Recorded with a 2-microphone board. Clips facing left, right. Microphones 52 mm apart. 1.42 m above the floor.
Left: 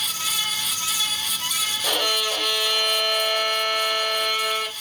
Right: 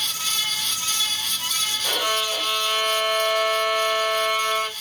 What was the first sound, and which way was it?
A violin, 80° left.